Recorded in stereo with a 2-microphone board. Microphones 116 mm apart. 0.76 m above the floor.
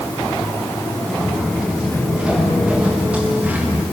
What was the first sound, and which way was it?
Footsteps, centre (ahead or behind).